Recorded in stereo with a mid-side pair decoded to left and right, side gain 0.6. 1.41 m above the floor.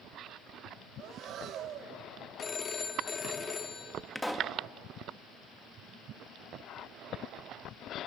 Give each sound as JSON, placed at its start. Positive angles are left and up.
{"t": 1.0, "sound": "breathing", "azimuth_deg": -55, "distance_m": 1.6}
{"t": 2.4, "sound": "a phone ringing", "azimuth_deg": 35, "distance_m": 1.8}
{"t": 4.2, "sound": "a pop", "azimuth_deg": 5, "distance_m": 1.7}